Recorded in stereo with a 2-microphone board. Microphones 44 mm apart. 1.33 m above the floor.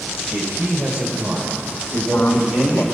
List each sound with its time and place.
0.3 s a man speaking: 45° right (ahead or behind), 5.5 m; by 2.9 s 35° right (ahead or behind), 4.5 m
1.9 s a man speaking: 65° left (ahead or behind), 1.8 m